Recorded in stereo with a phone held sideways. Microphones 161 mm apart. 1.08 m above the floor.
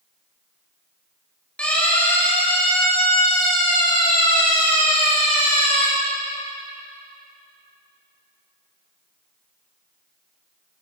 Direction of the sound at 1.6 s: 5° left (ahead or behind).